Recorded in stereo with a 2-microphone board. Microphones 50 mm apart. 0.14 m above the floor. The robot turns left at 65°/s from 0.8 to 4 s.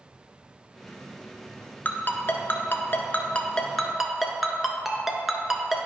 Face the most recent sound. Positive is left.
turn(degrees=-5)  # may be behind; listen again after turning